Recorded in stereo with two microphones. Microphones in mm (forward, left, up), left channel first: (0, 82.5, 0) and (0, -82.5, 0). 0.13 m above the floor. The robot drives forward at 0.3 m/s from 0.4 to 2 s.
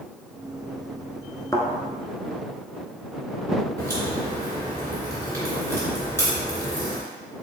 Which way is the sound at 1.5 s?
25° left (ahead or behind).